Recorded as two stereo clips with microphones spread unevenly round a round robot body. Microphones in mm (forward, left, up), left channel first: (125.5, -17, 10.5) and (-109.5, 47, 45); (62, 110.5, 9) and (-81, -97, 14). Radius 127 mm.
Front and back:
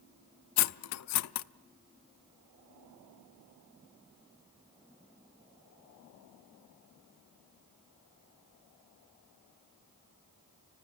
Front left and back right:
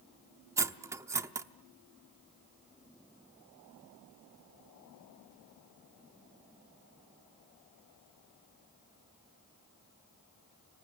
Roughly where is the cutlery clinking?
Ahead right.